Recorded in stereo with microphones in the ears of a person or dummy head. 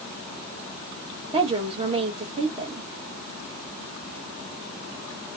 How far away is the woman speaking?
About 1.4 m.